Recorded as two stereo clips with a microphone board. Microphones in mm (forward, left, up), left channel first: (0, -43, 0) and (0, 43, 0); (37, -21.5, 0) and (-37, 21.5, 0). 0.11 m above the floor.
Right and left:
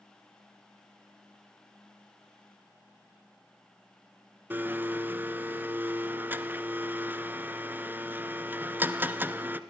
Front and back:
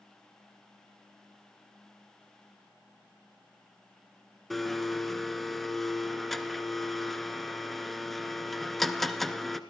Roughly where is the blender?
Ahead left.